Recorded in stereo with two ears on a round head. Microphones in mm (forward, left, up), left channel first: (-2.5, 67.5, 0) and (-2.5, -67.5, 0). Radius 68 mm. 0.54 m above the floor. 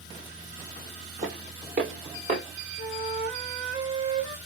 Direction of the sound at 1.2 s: 55° right (ahead or behind).